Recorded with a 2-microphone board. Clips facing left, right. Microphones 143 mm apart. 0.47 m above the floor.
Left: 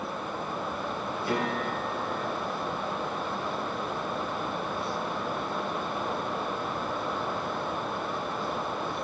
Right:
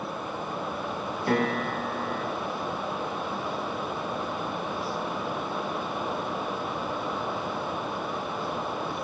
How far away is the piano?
About 4 m.